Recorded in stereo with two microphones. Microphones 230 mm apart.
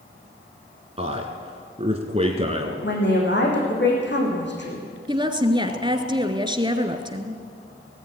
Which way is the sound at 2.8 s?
50° left (ahead or behind).